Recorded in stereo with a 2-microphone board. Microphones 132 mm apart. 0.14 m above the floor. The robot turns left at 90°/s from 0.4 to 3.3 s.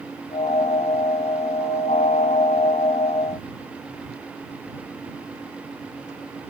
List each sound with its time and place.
Only background noise.